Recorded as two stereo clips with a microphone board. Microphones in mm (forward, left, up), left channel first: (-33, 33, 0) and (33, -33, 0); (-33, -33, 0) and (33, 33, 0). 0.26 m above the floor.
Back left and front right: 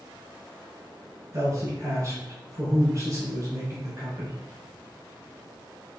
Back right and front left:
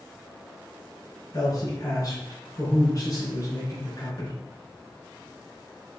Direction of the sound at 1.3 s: 95° right.